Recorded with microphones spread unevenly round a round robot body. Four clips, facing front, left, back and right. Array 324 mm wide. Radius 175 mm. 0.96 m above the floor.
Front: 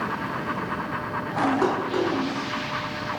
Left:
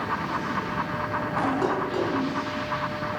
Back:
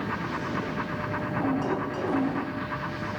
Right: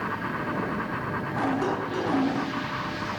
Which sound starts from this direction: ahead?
Dishes clattering, at 1.6 s.